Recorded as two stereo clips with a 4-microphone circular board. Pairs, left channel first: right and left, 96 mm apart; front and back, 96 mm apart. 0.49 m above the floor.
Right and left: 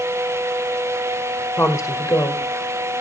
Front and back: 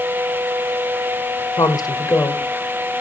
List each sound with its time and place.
1.6 s a woman speaking: 30° right, 1.5 m; by 2.9 s 70° right, 2 m